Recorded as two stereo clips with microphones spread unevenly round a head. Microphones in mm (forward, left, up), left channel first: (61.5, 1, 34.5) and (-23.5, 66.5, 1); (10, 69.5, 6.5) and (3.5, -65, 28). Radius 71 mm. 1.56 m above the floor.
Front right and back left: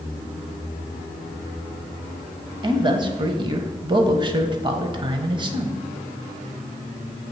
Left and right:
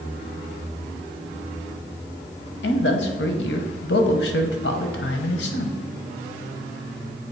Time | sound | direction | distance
2.6 | a man speaking | 90° left | 0.9 m